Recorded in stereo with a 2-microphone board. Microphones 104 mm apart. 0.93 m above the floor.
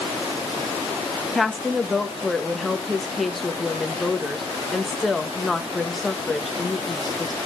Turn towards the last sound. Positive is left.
turn(degrees=0)  # may be behind; listen again after turning